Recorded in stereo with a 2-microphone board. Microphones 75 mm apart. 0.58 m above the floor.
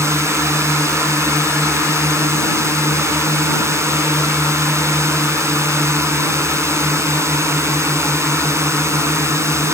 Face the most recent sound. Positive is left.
turn(degrees=-40)  # may be behind; listen again after turning